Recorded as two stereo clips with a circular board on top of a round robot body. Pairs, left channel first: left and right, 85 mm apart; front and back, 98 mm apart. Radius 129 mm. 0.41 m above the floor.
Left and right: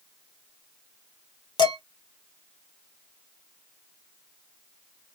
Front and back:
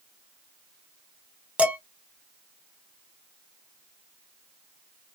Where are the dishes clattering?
105° left, 1.1 m.